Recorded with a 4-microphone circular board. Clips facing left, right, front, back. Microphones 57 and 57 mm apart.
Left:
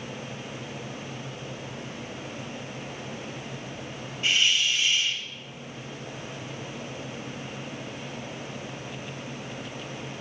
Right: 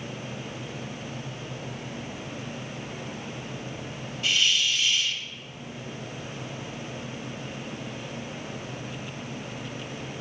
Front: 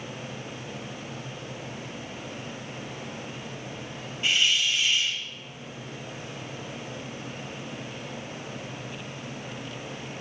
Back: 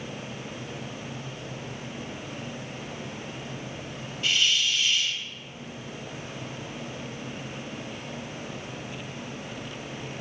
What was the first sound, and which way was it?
A hiss, 50° left.